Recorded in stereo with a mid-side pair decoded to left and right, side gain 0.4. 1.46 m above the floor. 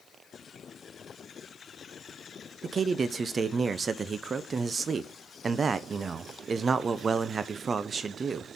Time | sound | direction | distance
2.6 | a man speaking | 40° right | 0.7 m